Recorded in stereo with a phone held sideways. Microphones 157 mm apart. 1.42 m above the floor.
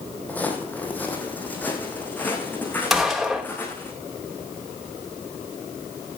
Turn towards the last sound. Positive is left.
turn(degrees=0)  # may be behind; listen again after turning